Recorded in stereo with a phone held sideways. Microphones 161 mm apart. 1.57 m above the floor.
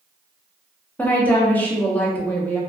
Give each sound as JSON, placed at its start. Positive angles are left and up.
{"t": 1.0, "sound": "a woman speaking", "side_deg": 10, "distance_m": 0.6}